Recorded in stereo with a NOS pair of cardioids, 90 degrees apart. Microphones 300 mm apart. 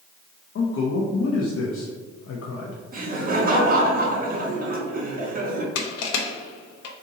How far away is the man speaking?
About 0.8 m.